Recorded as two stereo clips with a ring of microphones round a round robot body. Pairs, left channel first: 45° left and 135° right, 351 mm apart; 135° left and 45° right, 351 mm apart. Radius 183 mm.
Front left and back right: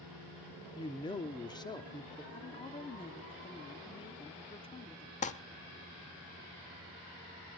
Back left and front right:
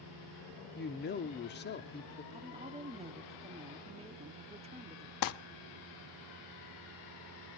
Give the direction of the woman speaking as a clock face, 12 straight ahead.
12 o'clock.